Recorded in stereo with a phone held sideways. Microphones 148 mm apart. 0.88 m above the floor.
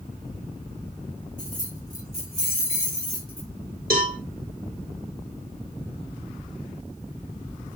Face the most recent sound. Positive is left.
turn(degrees=-80)